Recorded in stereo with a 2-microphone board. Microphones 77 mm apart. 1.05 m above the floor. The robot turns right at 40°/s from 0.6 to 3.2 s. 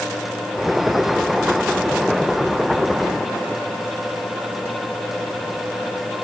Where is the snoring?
No snoring in this recording.